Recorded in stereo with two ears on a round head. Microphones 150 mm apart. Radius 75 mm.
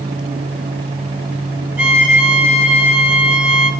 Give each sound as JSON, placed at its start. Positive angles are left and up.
{"t": 1.8, "sound": "a violin", "side_deg": -10, "distance_m": 1.9}